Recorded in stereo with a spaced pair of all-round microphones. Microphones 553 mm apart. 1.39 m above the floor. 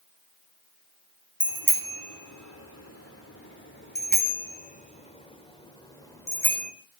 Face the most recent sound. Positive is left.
turn(degrees=5)  # may be behind; listen again after turning